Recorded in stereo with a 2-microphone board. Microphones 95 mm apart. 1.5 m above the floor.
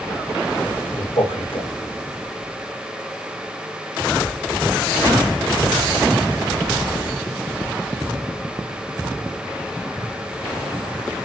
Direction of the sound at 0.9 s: 70° left (ahead or behind).